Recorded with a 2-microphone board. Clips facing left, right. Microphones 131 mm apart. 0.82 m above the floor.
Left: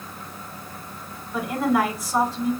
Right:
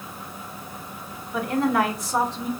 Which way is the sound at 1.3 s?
5° left (ahead or behind).